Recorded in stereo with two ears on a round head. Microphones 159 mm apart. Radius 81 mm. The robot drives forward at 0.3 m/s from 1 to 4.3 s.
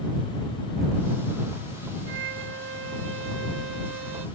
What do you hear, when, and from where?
2.1 s a violin: 65° right (ahead or behind); by 4.3 s 75° right (ahead or behind)